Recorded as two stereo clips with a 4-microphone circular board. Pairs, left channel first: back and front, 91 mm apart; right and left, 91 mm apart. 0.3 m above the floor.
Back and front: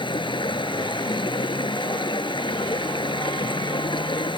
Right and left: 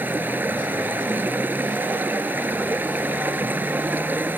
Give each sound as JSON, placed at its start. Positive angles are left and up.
{"t": 0.0, "sound": "running water", "azimuth_deg": 160}